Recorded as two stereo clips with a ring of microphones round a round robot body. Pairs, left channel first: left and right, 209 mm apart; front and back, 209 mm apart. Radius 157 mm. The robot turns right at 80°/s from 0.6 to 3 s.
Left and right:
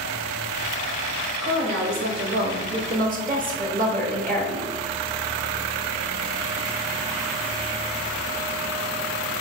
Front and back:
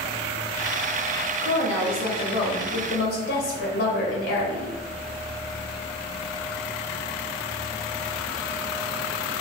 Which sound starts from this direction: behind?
A woman speaking, at 1.4 s.